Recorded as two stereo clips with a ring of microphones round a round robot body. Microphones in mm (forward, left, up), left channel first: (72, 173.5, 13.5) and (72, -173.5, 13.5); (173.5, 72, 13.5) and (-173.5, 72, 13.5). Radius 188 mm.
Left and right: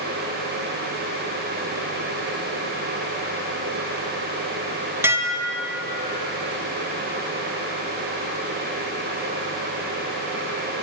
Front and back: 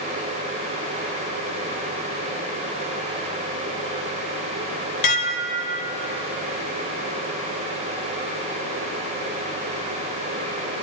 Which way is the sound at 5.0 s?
10° right.